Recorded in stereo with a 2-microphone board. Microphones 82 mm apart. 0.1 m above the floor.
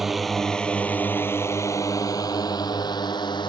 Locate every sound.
0.0 s a drone: 5° right (ahead or behind); by 3.5 s 65° left (ahead or behind)